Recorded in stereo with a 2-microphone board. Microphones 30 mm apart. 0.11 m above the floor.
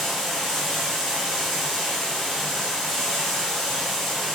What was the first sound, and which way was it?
Running water, 10° left (ahead or behind).